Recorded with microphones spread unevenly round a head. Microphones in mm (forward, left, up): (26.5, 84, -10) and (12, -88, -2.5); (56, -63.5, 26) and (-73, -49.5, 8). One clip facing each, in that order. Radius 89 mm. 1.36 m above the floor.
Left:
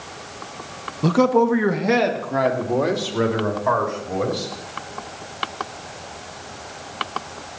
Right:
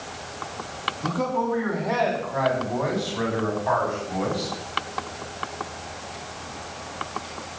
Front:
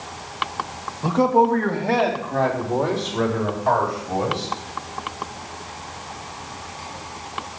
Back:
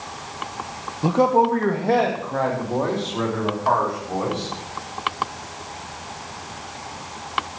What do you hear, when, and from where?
1.0 s a man speaking: 105° left, 1.2 m; by 4.5 s 75° left, 4.5 m